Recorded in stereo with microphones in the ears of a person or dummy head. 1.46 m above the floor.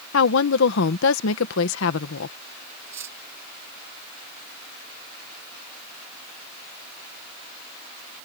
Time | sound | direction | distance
0.1 | a woman speaking | 65° left (ahead or behind) | ?
2.9 | cutlery clinking | 15° right (ahead or behind) | ?